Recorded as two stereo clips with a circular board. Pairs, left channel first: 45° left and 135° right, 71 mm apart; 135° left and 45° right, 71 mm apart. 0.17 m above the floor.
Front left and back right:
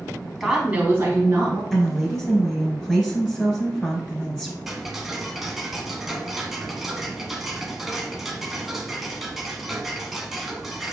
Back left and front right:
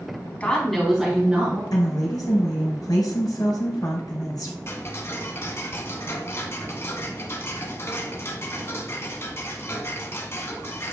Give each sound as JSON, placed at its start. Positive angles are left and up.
{"t": 0.4, "sound": "a woman speaking", "azimuth_deg": 135, "distance_m": 1.1}
{"t": 1.7, "sound": "a woman speaking", "azimuth_deg": 125, "distance_m": 2.0}
{"t": 4.7, "sound": "ticking", "azimuth_deg": 140, "distance_m": 0.7}